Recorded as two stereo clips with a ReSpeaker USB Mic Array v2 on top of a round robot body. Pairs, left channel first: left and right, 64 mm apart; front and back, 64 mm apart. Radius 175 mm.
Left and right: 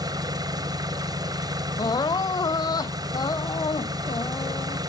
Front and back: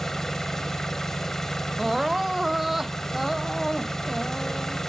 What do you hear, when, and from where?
0.0 s an engine running: 85° right
1.8 s crying: 95° left